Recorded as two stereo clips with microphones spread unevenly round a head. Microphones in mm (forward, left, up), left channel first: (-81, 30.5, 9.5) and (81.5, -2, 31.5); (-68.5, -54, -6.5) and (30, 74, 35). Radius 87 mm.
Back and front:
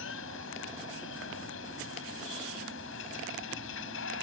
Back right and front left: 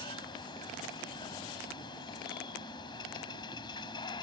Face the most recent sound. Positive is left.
turn(degrees=165)